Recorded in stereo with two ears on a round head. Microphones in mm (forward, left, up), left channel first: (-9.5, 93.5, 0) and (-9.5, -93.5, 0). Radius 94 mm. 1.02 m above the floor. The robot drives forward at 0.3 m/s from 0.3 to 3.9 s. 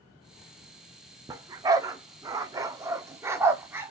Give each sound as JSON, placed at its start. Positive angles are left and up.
{"t": 1.3, "sound": "a dog barking", "side_deg": -15, "distance_m": 0.6}